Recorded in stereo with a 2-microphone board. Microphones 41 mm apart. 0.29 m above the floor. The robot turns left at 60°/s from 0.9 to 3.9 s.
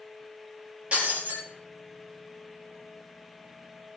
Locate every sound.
0.9 s breaking glass: 30° right, 4.5 m; by 1.4 s 60° right, 4.5 m